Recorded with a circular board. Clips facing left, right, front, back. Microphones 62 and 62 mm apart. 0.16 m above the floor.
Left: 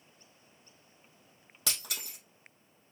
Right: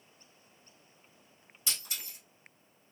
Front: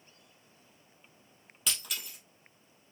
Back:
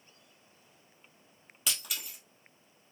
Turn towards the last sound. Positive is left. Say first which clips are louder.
# left 2 dB, even
turn(degrees=95)